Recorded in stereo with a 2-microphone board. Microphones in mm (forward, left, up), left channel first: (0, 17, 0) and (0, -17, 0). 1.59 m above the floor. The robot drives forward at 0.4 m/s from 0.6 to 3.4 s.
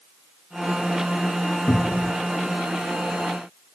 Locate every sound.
1.7 s a cupboard door: 80° left, 0.6 m